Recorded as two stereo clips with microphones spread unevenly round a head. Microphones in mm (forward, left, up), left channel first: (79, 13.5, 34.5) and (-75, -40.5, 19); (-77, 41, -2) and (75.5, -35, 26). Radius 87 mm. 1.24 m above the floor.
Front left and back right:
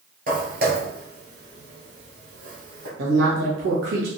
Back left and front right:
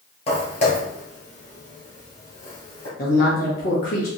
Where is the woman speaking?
165° right, 1.5 m.